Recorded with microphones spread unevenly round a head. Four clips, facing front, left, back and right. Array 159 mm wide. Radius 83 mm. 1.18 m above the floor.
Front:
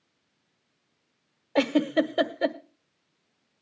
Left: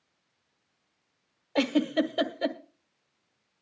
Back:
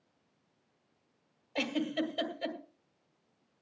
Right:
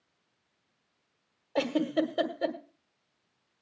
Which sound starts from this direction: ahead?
A giggle, at 1.6 s.